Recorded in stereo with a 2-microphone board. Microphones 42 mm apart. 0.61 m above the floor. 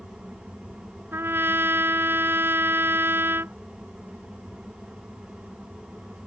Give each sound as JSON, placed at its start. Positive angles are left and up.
{"t": 1.1, "sound": "a trumpet", "side_deg": -60}